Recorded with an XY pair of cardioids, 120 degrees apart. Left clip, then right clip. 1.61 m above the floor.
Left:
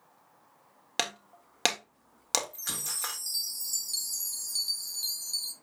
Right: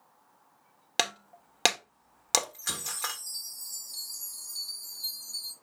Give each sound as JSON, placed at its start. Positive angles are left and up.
{"t": 1.0, "sound": "breaking glass", "azimuth_deg": -15, "distance_m": 2.0}
{"t": 2.5, "sound": "a chime", "azimuth_deg": 60, "distance_m": 2.5}